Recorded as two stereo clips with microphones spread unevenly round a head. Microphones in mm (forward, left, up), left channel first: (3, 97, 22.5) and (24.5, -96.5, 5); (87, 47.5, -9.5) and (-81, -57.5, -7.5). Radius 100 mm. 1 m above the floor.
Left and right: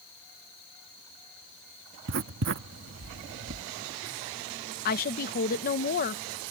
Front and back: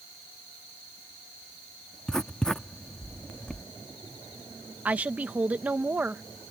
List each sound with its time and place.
2.1 s writing: 55° right
4.8 s a woman speaking: 130° left